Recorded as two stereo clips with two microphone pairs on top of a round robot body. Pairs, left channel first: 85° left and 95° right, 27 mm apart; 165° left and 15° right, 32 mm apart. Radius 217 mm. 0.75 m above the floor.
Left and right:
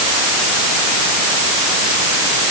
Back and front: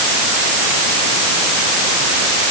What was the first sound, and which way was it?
Only background noise.